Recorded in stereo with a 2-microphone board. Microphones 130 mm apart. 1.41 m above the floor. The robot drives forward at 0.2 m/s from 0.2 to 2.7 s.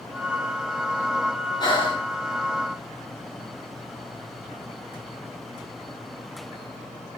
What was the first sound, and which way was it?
Breathing, 35° left (ahead or behind).